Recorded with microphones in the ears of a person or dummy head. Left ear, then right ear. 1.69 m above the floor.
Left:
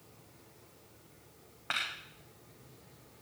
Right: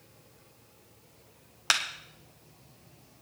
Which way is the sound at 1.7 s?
80° right.